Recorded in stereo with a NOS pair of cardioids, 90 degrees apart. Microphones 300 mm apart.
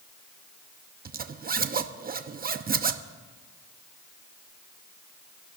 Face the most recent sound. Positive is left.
turn(degrees=-30)